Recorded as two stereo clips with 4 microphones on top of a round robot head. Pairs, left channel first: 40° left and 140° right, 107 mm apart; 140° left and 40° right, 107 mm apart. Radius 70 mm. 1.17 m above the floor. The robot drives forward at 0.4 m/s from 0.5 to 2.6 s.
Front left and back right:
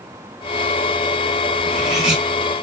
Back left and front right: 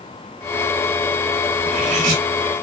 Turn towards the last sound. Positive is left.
turn(degrees=-60)